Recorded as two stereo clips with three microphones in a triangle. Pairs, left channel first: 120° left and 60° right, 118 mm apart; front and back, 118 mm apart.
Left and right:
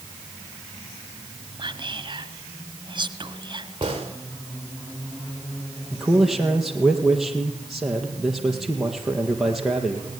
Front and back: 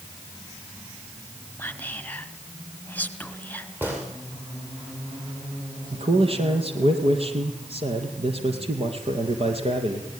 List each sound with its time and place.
1.6 s whispering: 70° right, 2.0 m
3.8 s a gunshot: 105° right, 7.5 m
5.9 s a man speaking: 150° right, 4 m